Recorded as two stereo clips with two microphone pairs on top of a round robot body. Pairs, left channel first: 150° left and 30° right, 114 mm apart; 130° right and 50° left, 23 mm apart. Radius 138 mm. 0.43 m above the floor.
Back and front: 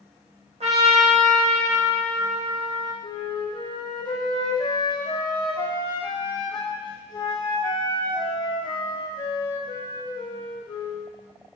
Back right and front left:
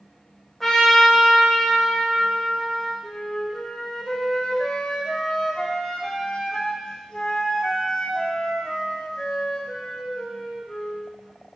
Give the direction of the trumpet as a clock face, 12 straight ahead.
1 o'clock.